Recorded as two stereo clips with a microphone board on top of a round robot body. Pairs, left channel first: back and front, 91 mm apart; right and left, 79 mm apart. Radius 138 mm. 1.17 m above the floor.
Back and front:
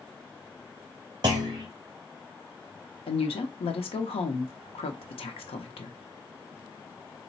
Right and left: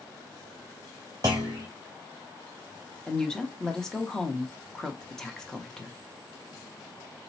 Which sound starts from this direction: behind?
A woman speaking, at 3.1 s.